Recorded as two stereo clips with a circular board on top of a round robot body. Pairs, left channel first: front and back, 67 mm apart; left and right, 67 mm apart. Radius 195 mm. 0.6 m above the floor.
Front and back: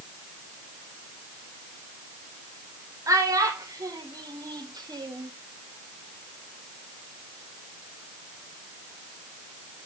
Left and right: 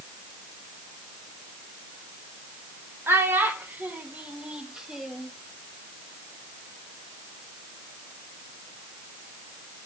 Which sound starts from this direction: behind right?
A child speaking, at 3.1 s.